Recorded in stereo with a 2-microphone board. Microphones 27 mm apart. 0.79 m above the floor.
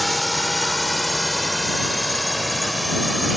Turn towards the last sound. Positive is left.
turn(degrees=0)  # may be behind; listen again after turning